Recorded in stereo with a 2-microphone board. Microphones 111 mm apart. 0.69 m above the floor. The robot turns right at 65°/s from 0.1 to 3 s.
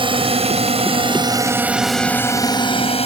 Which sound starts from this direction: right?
A drone, at 0.0 s.